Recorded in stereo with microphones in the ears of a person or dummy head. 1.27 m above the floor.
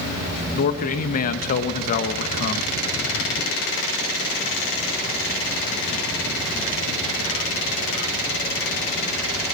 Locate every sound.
0.5 s a man speaking: 45° left (ahead or behind), 1.0 m